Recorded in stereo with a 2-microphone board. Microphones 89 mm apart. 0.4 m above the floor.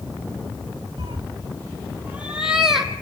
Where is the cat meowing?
55° right (ahead or behind), 0.6 m; by 2.9 s 5° right (ahead or behind), 1.6 m.